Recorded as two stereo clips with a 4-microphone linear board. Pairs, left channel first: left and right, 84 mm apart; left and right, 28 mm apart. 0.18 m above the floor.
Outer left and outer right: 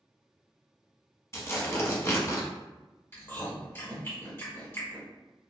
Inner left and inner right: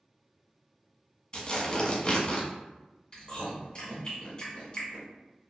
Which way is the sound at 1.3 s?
30° left (ahead or behind).